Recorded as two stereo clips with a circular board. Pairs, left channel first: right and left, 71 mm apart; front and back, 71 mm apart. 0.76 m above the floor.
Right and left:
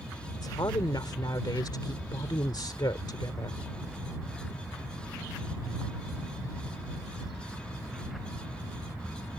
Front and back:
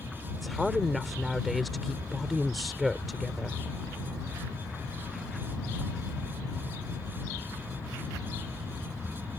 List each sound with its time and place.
0.3 s a woman speaking: 90° right